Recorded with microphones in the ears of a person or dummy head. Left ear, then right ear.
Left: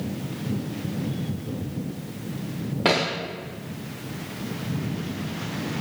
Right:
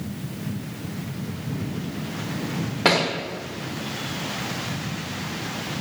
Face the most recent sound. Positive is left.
turn(degrees=-5)  # may be behind; listen again after turning